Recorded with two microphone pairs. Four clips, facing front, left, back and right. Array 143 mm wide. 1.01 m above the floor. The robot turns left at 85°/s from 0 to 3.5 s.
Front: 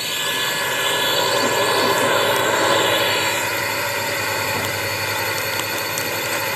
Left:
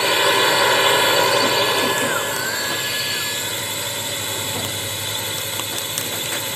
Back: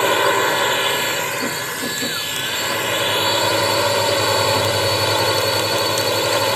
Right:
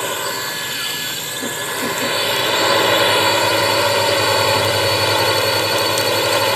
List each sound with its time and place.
0.0 s a drone: 175° left; by 6.6 s 125° right